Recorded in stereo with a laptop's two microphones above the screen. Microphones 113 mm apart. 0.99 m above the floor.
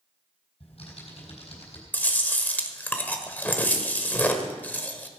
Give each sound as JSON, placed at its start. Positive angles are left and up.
{"t": 0.6, "sound": "typing on a keyboard", "side_deg": 60, "distance_m": 4.5}
{"t": 1.9, "sound": "chewing", "side_deg": 15, "distance_m": 1.0}